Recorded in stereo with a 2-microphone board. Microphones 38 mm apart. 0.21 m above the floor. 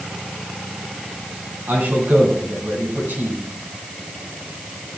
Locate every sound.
1.7 s a man speaking: 75° right (ahead or behind), 8.5 m